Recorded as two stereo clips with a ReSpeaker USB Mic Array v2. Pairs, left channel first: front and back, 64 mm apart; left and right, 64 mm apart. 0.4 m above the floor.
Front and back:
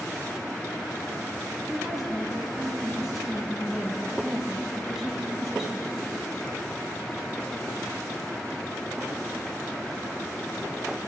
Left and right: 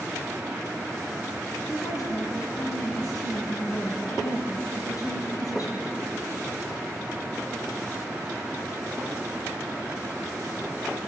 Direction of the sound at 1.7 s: 95° left.